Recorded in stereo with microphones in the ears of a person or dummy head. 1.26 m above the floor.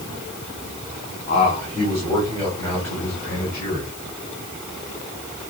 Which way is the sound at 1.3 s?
40° left (ahead or behind).